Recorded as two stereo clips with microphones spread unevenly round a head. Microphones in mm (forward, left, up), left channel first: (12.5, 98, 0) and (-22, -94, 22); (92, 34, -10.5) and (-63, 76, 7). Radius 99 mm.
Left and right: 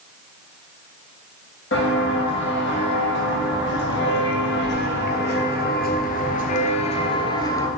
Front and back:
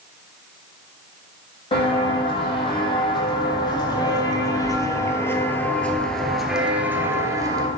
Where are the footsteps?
45° left, 3 m; by 7.7 s 155° left, 1.3 m.